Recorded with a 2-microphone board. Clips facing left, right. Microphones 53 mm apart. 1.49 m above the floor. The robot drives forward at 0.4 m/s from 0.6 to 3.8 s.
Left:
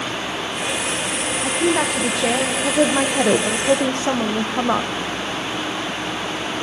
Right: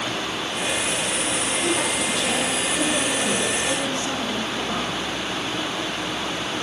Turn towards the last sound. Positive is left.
turn(degrees=80)